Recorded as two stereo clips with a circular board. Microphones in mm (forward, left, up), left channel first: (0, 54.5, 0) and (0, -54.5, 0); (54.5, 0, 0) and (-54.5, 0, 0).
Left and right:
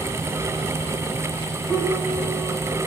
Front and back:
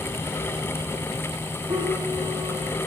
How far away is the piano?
About 6.5 m.